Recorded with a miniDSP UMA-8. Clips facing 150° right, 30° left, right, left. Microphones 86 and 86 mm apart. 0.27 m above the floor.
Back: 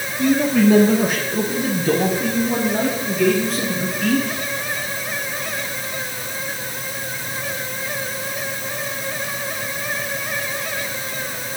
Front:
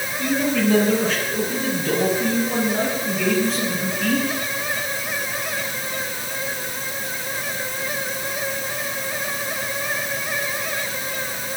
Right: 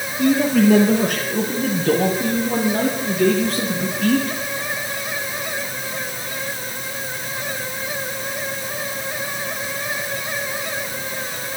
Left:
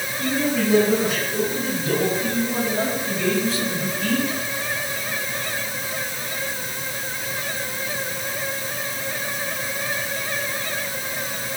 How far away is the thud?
I don't hear a thud.